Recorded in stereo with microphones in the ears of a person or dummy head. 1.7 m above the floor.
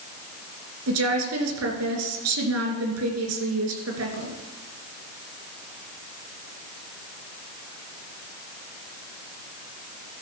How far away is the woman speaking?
About 2.5 m.